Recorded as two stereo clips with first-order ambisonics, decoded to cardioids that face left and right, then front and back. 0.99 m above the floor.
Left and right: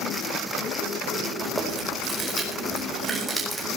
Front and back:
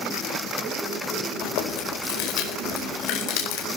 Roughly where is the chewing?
Ahead.